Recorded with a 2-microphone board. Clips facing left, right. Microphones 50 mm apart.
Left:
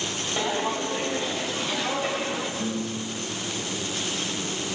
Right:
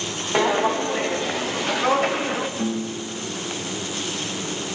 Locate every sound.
0.3 s footsteps: 80° right, 2.5 m; by 2.5 s 50° right (ahead or behind), 2.5 m
2.6 s a piano: 50° right (ahead or behind), 3.5 m